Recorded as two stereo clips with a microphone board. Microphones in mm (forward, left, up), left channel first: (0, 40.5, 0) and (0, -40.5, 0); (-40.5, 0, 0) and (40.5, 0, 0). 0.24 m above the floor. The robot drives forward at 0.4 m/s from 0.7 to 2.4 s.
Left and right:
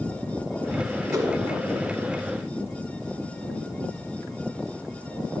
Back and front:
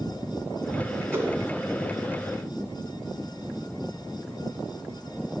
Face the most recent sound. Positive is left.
turn(degrees=-75)